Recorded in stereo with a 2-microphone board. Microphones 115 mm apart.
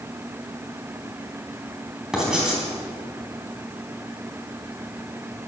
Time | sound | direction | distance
2.1 | writing | 5° right (ahead or behind) | 3.5 m